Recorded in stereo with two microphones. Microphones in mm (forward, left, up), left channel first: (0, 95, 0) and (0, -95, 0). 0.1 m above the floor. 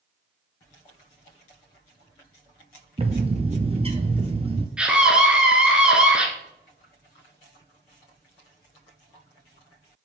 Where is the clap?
No clap in this recording.